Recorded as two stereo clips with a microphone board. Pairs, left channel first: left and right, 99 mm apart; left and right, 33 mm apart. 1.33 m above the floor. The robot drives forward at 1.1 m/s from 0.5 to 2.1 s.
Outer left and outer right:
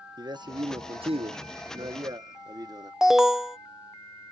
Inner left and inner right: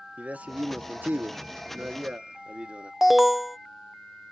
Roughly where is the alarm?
Centre.